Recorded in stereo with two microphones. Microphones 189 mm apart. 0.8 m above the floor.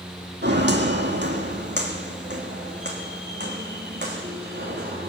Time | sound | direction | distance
0.4 | footsteps | 65° right (ahead or behind) | 1.9 m